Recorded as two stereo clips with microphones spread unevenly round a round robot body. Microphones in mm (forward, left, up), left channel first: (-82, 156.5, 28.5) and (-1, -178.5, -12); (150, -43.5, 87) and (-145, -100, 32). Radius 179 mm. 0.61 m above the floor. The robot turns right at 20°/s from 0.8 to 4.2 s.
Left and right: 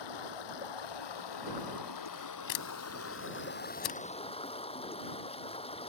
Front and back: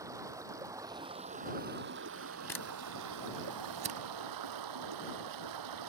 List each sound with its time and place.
0.0 s running water: 110° left; by 5.9 s 175° left
2.5 s a camera shutter: 95° left; by 4.0 s 125° left